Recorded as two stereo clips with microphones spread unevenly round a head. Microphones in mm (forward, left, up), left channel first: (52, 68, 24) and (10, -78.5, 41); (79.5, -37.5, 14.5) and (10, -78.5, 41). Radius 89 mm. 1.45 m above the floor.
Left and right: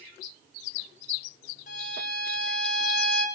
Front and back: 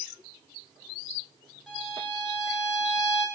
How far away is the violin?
About 4.5 m.